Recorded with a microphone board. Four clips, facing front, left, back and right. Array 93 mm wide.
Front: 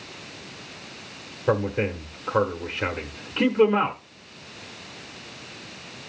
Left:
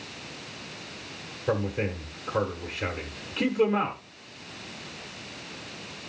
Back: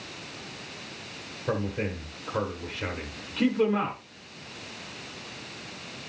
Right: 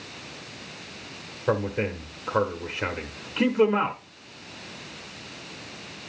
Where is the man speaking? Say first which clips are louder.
Right 2 dB, front 6 dB; 35° right, 1.3 m.